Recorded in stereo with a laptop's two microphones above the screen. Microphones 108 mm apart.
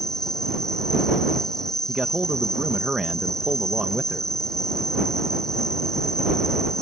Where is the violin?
No violin in this recording.